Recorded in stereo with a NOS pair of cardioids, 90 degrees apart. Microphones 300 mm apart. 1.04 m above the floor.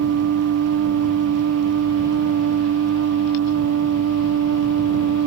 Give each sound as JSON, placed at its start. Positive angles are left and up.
{"t": 0.0, "sound": "a machine running", "azimuth_deg": -55}